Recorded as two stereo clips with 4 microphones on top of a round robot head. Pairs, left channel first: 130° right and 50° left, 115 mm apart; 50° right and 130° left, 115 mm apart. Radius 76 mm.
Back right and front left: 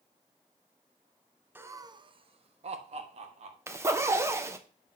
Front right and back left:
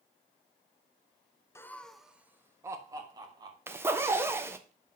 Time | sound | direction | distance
1.6 | laughter | 10° right | 0.8 m
3.7 | a zipper | 85° left | 1.0 m